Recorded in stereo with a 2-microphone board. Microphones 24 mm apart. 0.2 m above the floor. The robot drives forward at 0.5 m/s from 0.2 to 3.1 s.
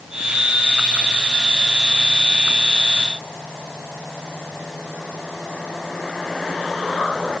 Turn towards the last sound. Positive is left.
No sound to turn to.